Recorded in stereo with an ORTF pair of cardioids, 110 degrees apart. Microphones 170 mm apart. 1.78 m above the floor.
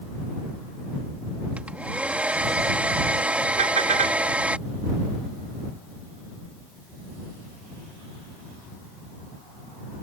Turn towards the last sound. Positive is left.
turn(degrees=-45)